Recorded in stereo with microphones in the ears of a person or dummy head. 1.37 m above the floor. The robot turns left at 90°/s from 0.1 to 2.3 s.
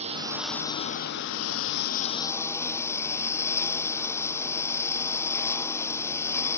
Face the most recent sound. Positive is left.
turn(degrees=15)